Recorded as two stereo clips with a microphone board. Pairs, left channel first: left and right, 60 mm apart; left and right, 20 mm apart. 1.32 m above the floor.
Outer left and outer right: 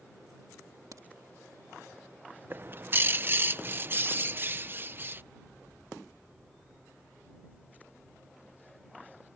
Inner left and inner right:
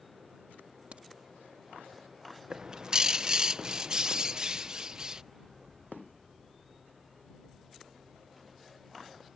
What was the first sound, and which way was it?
A crack, 75° right (ahead or behind).